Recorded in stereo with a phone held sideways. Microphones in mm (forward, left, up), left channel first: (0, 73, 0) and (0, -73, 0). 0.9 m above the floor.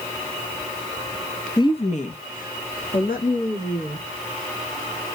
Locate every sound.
1.6 s a woman speaking: 25° left (ahead or behind), 0.5 m; by 4.1 s 80° left, 2 m